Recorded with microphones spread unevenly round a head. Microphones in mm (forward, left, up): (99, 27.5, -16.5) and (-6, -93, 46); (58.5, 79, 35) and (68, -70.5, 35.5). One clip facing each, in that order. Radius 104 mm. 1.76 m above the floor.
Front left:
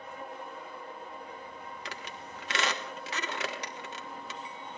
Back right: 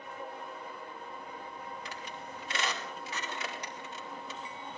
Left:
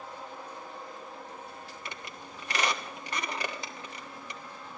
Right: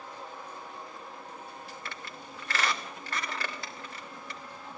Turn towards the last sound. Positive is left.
turn(degrees=20)